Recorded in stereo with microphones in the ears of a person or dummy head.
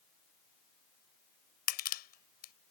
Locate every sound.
1.7 s crushing: 50° left (ahead or behind)